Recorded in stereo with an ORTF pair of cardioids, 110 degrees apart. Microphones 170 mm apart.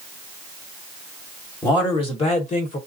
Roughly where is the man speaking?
Ahead left.